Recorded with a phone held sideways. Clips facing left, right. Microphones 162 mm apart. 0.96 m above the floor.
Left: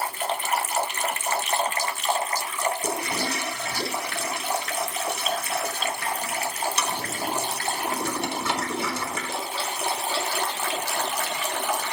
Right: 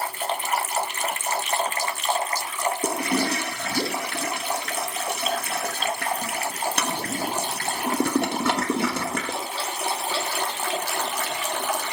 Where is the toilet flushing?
60° right (ahead or behind), 1.2 m.